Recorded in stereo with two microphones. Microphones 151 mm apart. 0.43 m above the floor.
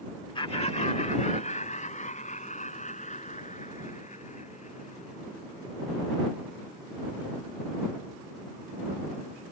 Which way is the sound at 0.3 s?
35° left (ahead or behind).